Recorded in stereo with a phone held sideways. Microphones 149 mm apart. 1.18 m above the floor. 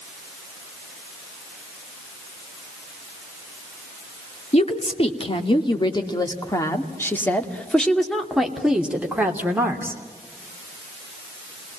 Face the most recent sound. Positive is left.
turn(degrees=-15)  # may be behind; listen again after turning